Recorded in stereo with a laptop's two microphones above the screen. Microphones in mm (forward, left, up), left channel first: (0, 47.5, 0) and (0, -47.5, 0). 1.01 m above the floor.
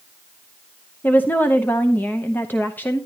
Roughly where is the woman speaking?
Centre.